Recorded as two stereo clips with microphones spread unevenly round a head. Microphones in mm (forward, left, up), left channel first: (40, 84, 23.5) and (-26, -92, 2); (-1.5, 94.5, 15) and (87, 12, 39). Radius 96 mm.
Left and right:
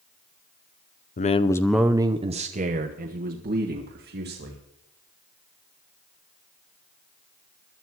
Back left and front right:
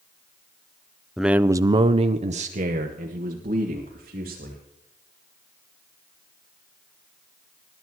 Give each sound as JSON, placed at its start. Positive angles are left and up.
{"t": 1.2, "sound": "a man speaking", "azimuth_deg": 65, "distance_m": 0.6}